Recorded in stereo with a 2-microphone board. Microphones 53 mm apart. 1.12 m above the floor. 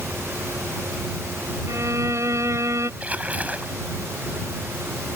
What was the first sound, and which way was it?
A violin, 70° right (ahead or behind).